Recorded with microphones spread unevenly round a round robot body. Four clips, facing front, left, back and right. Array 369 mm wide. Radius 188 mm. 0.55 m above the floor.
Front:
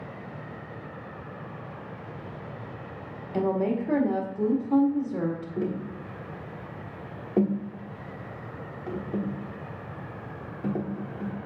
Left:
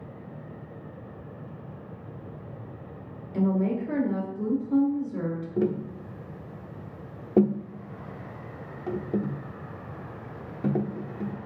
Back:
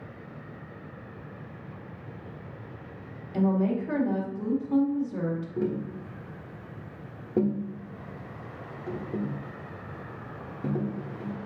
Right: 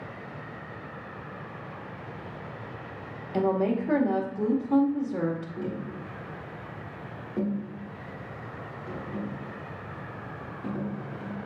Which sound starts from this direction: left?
Tapping, at 5.6 s.